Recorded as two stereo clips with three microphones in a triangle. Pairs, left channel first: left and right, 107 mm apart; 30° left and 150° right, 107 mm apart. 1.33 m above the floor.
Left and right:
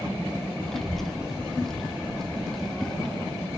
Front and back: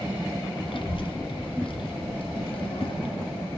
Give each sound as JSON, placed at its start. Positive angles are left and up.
{"t": 0.7, "sound": "a child speaking", "azimuth_deg": 5, "distance_m": 0.9}